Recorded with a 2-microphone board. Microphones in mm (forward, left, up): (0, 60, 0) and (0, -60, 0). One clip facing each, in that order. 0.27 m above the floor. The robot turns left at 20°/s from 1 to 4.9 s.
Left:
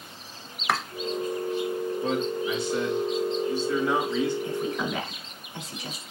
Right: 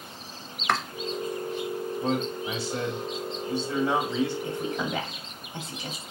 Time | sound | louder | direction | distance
0.7 | chopping | even | 5° left (ahead or behind) | 0.6 m
2.0 | a man speaking | even | 90° right | 1.8 m
4.4 | a woman speaking | left 1 dB | 25° right (ahead or behind) | 1.7 m